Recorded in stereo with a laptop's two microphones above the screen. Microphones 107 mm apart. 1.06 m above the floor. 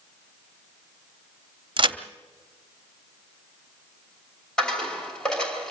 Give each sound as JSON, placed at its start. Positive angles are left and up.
{"t": 1.8, "sound": "a crack", "side_deg": -50, "distance_m": 0.8}
{"t": 4.6, "sound": "a dropped coin", "side_deg": 5, "distance_m": 3.0}